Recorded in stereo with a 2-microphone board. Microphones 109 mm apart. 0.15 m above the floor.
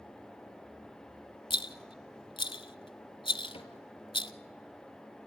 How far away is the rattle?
About 0.6 m.